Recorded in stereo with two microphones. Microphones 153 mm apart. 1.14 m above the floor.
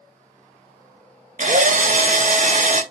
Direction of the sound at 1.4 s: 55° right (ahead or behind).